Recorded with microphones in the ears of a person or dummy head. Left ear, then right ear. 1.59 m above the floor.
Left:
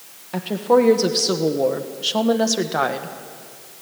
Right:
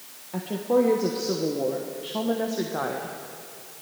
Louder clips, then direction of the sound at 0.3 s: Left 6 dB; 40° left (ahead or behind).